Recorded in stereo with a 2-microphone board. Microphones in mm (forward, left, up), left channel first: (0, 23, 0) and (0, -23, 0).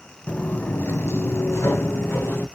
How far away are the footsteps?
About 0.6 m.